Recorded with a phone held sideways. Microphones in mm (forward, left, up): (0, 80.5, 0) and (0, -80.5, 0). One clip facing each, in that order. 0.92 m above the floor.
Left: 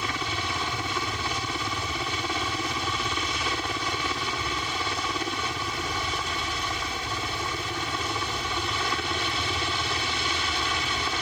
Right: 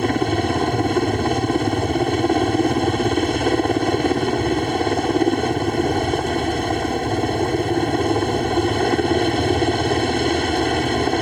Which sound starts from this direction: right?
A helicopter, at 0.0 s.